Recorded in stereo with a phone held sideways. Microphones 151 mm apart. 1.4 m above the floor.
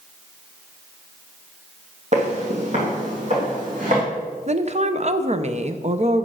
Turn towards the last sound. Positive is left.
turn(degrees=-50)  # may be behind; listen again after turning